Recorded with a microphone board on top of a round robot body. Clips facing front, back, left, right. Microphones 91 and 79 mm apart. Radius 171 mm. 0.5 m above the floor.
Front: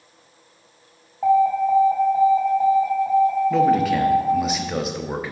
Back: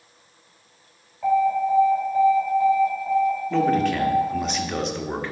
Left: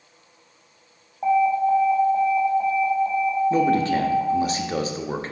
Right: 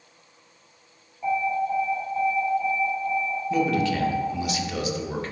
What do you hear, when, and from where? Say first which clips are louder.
1.2 s an alarm: front 3 dB, left 6 dB; 50° left, 2.5 m
3.5 s a man speaking: front 3 dB, even; 80° left, 1.3 m